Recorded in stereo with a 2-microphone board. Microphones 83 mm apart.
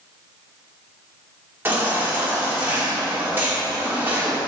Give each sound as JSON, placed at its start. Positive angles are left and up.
{"t": 1.6, "sound": "a baby crying", "side_deg": -25, "distance_m": 2.5}